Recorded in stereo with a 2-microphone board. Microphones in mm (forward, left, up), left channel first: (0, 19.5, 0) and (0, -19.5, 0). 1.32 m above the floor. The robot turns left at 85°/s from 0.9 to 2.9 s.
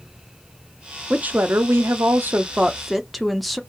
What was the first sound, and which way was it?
A woman speaking, 25° right.